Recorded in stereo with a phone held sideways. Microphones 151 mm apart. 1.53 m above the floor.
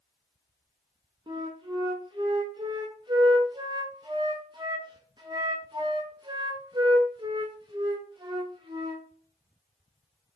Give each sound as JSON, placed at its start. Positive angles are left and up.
{"t": 1.3, "sound": "a flute", "side_deg": -30, "distance_m": 0.6}